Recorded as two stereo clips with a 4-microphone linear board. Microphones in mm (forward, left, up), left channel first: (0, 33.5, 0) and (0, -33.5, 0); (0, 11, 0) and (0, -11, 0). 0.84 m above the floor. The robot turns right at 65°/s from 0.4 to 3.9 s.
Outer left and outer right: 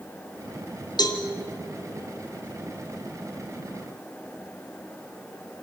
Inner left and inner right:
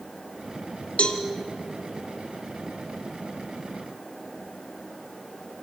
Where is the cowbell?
70° left (ahead or behind), 1.8 m; by 1.2 s 65° left (ahead or behind), 1.8 m.